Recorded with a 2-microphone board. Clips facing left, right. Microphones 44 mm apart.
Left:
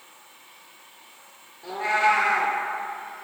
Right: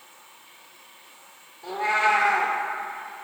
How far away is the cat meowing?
About 1.4 m.